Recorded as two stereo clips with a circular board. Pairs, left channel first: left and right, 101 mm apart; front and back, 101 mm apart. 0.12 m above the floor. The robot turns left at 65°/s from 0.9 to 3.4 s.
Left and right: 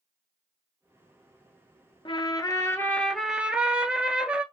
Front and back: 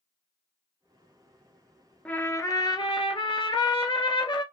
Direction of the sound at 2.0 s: 75° left.